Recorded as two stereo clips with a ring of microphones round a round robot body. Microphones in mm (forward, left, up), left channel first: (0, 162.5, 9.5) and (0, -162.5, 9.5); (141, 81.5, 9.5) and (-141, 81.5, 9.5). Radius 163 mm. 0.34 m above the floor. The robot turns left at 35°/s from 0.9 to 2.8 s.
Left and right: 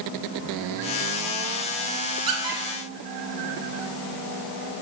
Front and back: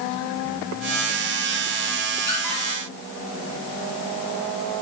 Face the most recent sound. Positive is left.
turn(degrees=-100)